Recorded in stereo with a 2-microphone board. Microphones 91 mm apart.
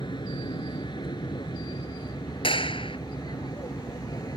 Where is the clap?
70° left (ahead or behind).